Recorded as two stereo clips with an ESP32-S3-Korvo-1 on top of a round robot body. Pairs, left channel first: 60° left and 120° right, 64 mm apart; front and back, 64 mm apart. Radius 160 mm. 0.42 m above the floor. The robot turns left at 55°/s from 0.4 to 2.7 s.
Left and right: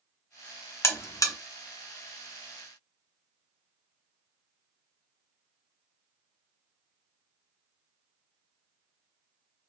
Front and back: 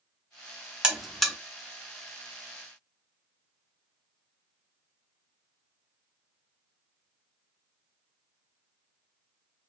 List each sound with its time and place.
0.8 s a buzzer: 105° left, 0.7 m; by 1.4 s 75° left, 0.7 m